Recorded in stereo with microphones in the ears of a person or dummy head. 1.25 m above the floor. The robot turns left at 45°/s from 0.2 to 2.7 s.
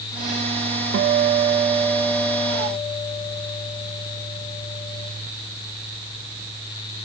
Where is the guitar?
130° right, 1.1 m; by 5.1 s 150° left, 1.1 m.